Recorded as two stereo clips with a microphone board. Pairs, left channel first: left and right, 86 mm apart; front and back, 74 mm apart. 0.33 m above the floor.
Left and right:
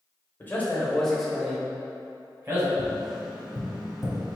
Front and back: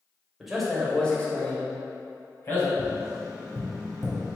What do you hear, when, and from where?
0.4 s a man speaking: 100° left, 1.1 m; by 2.7 s 40° right, 1.9 m
2.8 s tapping: 175° right, 1.7 m